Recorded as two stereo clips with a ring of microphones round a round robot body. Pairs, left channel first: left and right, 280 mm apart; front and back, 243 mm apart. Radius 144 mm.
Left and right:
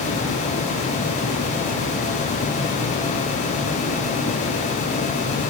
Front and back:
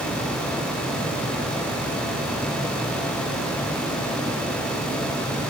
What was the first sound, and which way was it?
Only background noise.